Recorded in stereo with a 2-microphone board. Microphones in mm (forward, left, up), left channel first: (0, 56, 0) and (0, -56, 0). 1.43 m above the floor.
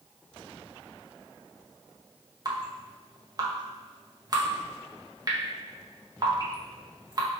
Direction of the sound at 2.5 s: 35° right (ahead or behind).